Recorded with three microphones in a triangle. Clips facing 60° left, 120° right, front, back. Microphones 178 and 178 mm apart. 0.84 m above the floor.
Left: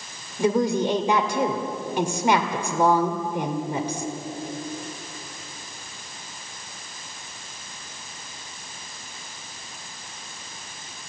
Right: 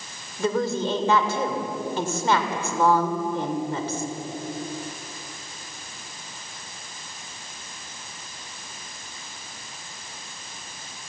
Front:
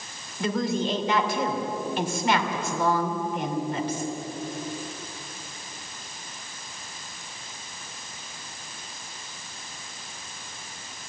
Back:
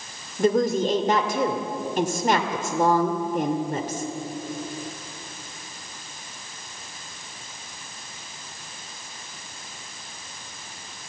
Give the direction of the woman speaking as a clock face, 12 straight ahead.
7 o'clock.